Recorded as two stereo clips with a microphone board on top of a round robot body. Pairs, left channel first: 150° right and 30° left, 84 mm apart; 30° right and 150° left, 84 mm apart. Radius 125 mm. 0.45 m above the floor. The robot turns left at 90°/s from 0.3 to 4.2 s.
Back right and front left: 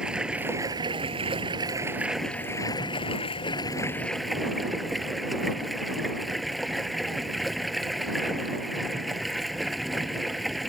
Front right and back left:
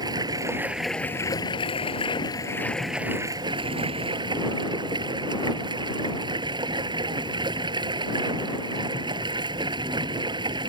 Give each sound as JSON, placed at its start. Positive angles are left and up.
{"t": 0.0, "sound": "running water", "azimuth_deg": 110}